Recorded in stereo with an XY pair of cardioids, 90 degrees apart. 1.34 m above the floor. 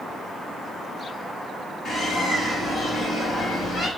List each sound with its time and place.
1.9 s a bird: 55° left, 4 m